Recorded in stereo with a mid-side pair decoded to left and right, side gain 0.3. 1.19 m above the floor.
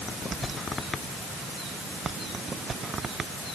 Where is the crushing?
No crushing in this recording.